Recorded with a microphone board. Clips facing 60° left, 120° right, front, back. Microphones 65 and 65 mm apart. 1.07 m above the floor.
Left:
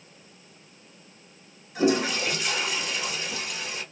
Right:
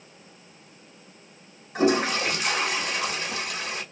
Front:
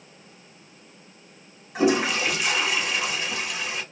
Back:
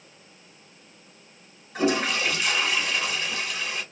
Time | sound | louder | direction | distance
1.8 | a toilet flushing | right 1 dB, front 3 dB | 85° right | 1.0 m